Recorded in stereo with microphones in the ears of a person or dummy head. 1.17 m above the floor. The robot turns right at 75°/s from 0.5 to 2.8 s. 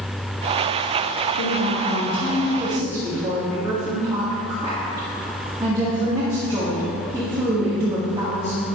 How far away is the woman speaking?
About 1.9 m.